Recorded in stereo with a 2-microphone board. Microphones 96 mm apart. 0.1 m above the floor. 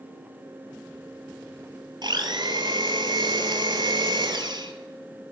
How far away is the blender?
About 1.0 m.